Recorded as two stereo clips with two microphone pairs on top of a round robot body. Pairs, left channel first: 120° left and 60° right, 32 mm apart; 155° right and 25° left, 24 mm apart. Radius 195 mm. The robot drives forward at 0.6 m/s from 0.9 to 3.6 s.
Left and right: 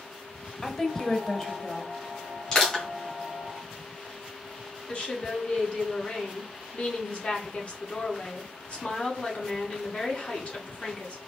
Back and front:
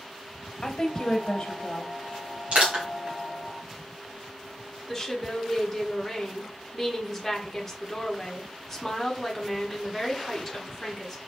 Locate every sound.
0.6 s a woman speaking: 175° left, 1.5 m
2.5 s crushing: 55° left, 2.5 m; by 2.9 s 60° left, 2 m
4.9 s a woman speaking: 140° left, 1.4 m